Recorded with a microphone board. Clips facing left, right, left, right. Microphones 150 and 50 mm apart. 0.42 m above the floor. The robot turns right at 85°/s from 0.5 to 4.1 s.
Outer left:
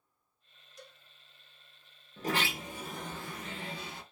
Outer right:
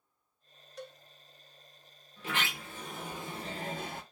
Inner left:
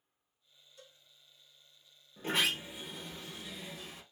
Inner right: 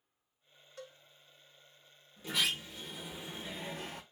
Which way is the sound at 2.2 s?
115° left.